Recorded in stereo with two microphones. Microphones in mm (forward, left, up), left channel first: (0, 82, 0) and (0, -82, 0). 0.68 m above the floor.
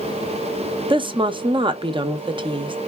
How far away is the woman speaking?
About 0.6 m.